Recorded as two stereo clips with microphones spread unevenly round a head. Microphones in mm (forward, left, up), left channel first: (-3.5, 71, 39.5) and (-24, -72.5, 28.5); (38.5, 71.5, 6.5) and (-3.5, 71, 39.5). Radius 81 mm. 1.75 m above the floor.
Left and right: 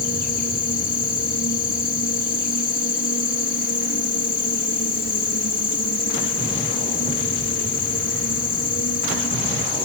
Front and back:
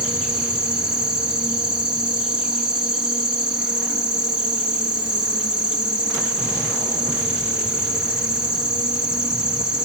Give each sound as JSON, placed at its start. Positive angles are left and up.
{"t": 0.0, "sound": "an insect", "azimuth_deg": 110}